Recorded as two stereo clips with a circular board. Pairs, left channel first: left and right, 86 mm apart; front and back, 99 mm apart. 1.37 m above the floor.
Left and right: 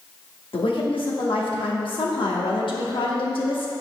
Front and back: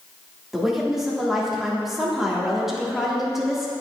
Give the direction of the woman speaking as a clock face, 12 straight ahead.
9 o'clock.